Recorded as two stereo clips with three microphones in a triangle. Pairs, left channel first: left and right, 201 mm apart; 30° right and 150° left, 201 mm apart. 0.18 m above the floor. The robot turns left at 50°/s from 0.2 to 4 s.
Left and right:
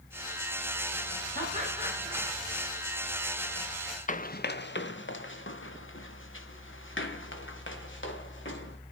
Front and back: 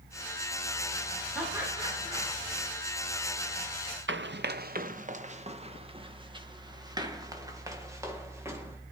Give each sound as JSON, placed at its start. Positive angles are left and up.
{"t": 1.4, "sound": "laughter", "azimuth_deg": -120, "distance_m": 7.0}
{"t": 4.1, "sound": "running footsteps", "azimuth_deg": 135, "distance_m": 0.8}